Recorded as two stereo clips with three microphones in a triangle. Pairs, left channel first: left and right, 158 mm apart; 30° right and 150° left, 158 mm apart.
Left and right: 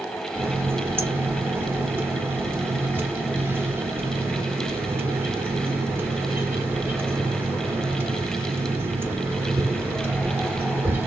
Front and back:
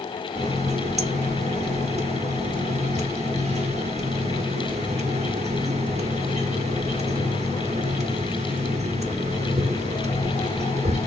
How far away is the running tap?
About 0.8 m.